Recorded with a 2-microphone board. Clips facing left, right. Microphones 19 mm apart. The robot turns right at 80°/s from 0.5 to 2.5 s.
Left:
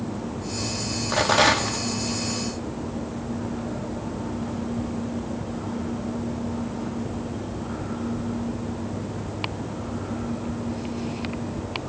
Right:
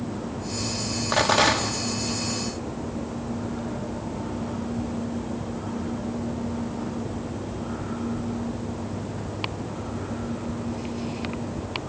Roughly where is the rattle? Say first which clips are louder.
Left 1 dB; ahead.